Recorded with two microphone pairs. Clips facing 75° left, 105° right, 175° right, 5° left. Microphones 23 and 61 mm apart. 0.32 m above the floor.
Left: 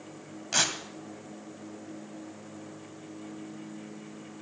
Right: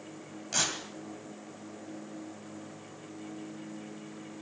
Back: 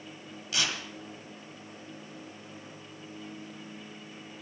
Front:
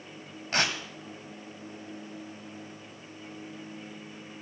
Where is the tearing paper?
15° left, 1.9 m.